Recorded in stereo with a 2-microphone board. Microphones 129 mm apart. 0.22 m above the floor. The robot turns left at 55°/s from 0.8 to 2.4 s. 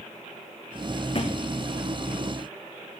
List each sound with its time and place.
1.1 s a thud: 40° left (ahead or behind), 2 m; by 1.4 s 55° left (ahead or behind), 2 m